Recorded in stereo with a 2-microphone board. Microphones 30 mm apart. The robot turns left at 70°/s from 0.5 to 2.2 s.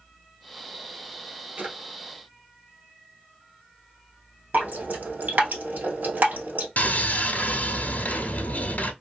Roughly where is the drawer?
Right.